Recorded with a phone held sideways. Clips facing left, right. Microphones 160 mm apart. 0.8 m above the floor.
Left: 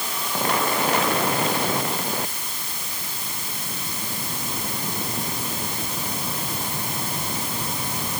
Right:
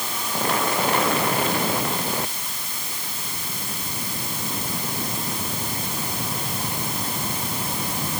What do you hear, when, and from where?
Only background noise.